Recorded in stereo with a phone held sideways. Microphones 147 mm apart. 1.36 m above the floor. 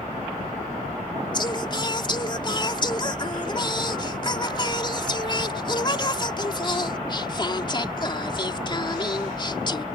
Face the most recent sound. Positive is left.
turn(degrees=30)  # may be behind; listen again after turning